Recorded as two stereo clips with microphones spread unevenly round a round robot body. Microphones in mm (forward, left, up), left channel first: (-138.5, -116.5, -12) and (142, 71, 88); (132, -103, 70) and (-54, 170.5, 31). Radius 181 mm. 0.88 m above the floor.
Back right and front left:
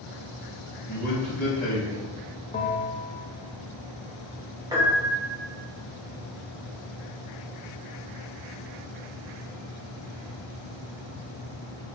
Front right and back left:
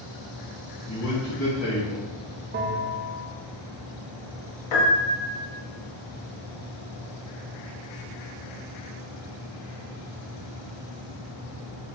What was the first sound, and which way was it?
A man speaking, 95° right.